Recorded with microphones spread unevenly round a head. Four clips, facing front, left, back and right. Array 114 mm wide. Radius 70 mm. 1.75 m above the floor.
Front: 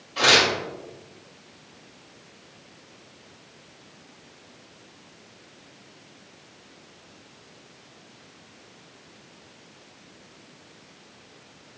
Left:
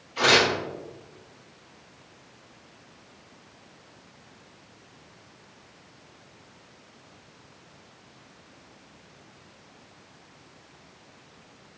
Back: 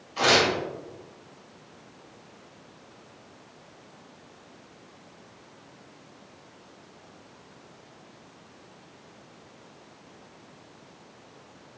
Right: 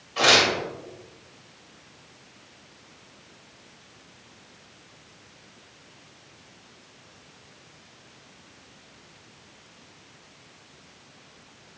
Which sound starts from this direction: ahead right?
Tearing paper, at 0.2 s.